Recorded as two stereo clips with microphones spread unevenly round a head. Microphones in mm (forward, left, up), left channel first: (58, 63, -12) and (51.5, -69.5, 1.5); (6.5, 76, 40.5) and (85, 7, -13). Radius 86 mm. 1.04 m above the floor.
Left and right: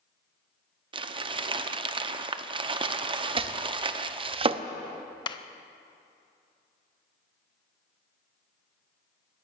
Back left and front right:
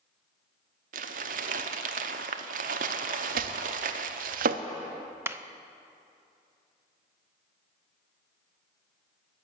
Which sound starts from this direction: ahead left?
A clap, at 5.3 s.